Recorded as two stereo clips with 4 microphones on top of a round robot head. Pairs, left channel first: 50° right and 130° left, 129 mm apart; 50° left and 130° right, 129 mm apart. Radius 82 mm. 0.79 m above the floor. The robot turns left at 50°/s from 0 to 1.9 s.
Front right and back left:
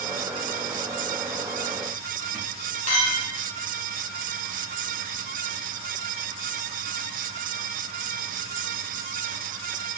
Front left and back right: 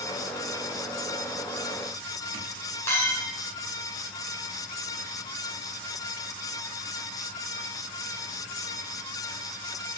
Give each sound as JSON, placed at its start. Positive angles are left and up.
{"t": 2.9, "sound": "a clink", "azimuth_deg": -20, "distance_m": 2.0}